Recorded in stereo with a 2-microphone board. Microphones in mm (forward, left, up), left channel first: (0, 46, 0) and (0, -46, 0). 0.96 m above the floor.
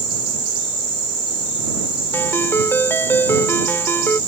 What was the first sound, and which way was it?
A ringtone, 25° left (ahead or behind).